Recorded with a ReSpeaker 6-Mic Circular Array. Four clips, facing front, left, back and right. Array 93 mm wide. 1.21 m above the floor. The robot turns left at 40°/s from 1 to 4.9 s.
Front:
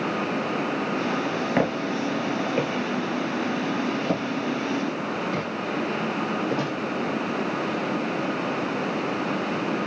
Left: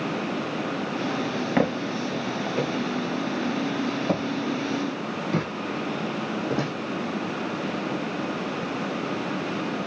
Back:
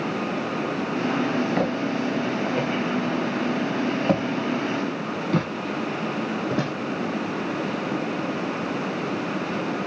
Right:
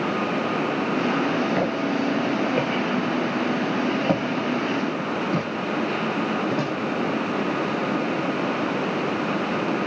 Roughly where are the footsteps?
Ahead left.